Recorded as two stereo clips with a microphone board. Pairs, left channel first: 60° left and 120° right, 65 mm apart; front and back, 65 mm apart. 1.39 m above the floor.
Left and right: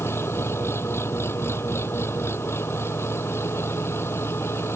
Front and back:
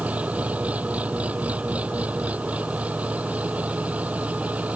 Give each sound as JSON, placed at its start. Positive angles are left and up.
{"t": 0.0, "sound": "an engine running", "azimuth_deg": 110}